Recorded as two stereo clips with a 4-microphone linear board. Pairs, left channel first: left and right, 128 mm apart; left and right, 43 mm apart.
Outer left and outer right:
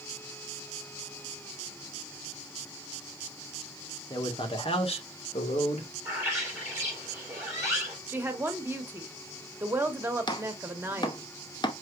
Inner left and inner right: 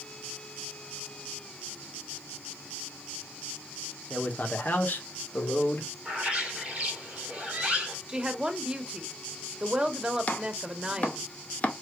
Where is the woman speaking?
15° right (ahead or behind), 1.2 m.